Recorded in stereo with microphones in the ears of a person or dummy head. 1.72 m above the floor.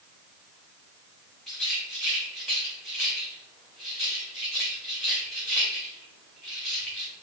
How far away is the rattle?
About 2.5 m.